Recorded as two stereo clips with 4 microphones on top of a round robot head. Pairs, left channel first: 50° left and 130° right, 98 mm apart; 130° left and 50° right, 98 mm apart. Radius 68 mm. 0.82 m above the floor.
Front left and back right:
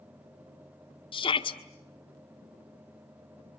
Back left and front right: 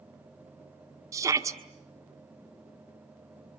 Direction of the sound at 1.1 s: 10° left.